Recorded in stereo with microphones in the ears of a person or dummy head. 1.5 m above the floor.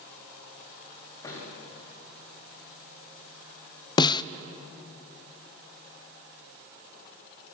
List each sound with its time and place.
1.2 s a thud: 20° left (ahead or behind), 8.5 m
4.0 s a snare drum: 30° left (ahead or behind), 0.6 m